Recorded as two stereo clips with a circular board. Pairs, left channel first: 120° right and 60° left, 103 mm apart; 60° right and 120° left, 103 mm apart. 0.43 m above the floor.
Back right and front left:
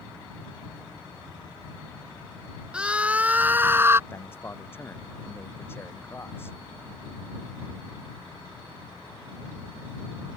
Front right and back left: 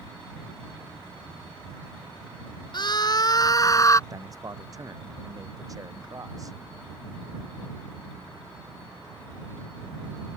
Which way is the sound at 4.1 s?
175° left.